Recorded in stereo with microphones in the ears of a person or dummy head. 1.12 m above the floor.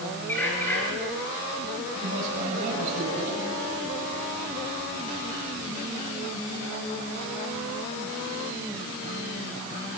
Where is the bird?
5° left (ahead or behind), 7.5 m.